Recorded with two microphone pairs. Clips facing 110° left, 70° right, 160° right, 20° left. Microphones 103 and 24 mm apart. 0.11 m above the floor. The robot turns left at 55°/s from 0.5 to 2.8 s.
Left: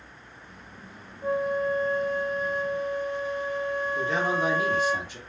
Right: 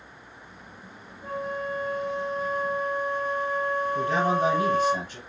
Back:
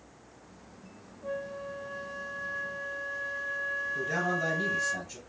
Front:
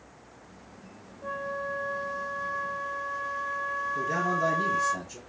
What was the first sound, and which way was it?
A flute, 50° left.